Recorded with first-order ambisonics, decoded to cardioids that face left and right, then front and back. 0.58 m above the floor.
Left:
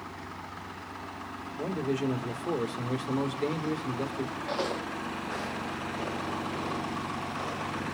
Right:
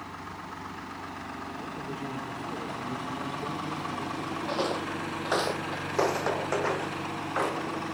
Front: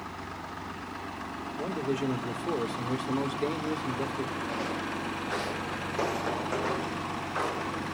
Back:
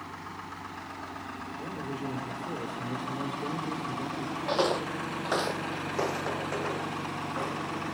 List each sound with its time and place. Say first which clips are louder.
1.6 s a man speaking: left 5 dB, front 8 dB; 50° left, 1.7 m
4.5 s footsteps: right 3 dB, back 5 dB; straight behind, 0.9 m; by 8.0 s 75° right, 3 m